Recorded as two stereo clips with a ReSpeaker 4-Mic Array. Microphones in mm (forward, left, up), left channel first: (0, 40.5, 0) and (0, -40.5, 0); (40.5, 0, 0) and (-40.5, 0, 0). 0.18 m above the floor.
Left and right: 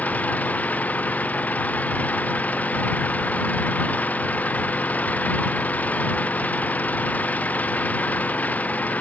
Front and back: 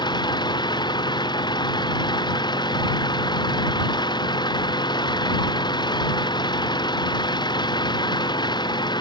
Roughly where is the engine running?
Ahead.